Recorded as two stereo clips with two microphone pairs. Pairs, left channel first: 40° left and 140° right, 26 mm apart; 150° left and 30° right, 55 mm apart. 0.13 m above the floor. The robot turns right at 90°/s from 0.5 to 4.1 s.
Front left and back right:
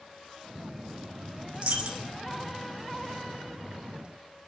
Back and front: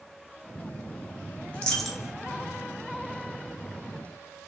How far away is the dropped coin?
About 0.5 m.